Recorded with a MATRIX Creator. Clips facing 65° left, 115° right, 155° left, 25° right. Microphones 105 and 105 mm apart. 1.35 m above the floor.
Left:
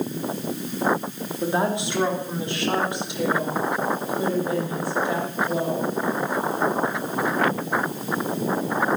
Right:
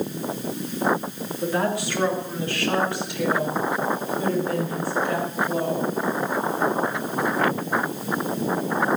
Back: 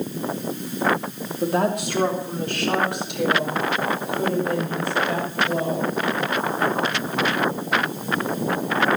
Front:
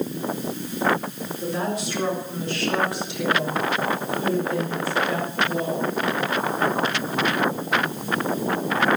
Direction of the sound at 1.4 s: 135° left.